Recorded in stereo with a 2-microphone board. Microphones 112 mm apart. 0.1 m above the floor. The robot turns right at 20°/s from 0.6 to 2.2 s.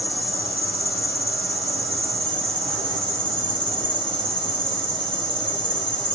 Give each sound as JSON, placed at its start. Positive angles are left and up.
{"t": 0.0, "sound": "an insect", "azimuth_deg": -90, "distance_m": 1.9}